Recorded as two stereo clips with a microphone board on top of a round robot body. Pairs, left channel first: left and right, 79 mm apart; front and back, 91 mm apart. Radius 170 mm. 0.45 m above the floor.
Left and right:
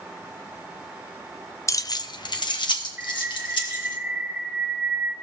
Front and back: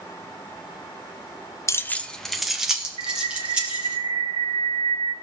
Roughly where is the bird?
Behind.